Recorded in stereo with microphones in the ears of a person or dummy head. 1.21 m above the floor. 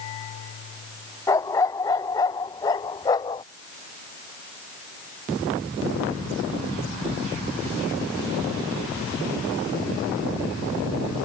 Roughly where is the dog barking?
Centre.